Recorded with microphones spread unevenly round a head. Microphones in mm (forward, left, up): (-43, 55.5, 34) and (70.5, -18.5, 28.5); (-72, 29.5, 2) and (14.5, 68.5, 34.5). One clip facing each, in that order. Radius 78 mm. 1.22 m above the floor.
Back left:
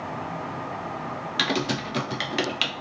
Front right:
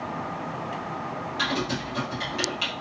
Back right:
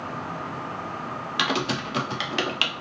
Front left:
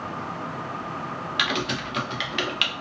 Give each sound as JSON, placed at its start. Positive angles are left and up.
{"t": 1.4, "sound": "typing on a keyboard", "azimuth_deg": 160, "distance_m": 0.5}